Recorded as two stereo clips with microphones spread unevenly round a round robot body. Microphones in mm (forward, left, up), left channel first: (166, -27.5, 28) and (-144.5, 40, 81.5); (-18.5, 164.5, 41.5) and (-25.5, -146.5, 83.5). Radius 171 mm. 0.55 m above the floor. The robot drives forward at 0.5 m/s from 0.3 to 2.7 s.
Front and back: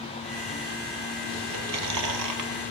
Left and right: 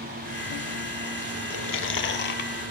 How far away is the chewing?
About 0.8 m.